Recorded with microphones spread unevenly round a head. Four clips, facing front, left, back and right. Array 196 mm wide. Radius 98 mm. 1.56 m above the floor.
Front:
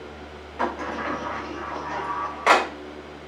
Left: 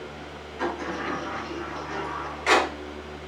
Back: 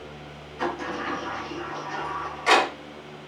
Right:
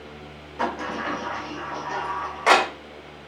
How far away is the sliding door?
About 3.5 m.